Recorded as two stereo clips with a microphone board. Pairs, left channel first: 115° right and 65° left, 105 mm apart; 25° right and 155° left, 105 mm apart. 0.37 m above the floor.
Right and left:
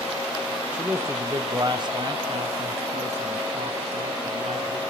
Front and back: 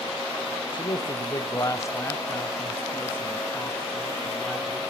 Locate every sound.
0.7 s a man speaking: 10° right, 1.5 m; by 4.8 s 60° left, 4.5 m